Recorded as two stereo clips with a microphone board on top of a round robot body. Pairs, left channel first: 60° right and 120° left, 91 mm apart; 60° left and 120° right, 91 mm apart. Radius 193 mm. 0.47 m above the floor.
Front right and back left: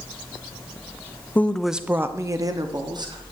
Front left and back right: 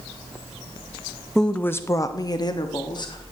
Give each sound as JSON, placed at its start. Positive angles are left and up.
{"t": 1.4, "sound": "a woman speaking", "azimuth_deg": -20, "distance_m": 0.8}